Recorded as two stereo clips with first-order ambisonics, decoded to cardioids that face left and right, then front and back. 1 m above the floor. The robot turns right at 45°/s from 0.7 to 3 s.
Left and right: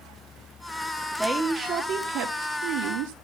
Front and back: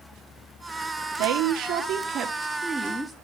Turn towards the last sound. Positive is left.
turn(degrees=-90)